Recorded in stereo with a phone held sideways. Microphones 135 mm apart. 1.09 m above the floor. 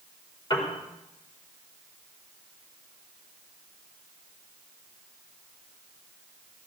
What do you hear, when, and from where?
0.5 s a piano: 35° left (ahead or behind), 4 m